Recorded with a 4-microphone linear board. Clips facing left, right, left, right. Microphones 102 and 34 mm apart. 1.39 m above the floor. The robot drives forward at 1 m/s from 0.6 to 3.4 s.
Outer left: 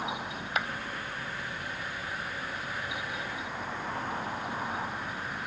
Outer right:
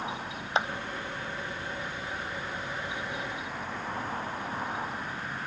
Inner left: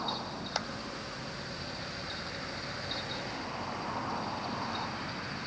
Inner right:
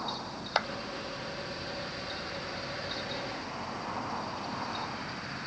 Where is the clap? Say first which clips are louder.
Outer right 4 dB, inner right 7 dB; 30° right (ahead or behind).